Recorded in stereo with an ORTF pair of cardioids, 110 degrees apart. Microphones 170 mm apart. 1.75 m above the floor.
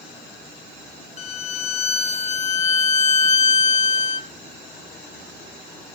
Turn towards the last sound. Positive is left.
turn(degrees=40)